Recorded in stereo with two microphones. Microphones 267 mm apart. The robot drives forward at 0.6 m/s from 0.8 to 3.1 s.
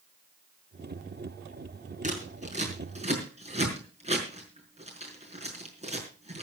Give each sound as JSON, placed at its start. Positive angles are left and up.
{"t": 2.0, "sound": "scissors", "side_deg": -30, "distance_m": 4.5}